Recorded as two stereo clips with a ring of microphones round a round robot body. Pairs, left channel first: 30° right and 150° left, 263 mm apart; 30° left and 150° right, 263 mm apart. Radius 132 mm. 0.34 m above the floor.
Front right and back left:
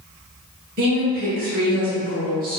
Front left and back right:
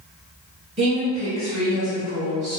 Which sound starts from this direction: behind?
A woman speaking, at 0.8 s.